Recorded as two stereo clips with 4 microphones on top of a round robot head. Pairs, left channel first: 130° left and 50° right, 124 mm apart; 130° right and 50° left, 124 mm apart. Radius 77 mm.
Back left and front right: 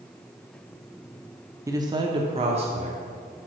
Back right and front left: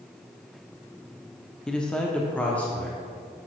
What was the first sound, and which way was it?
A man speaking, 50° right.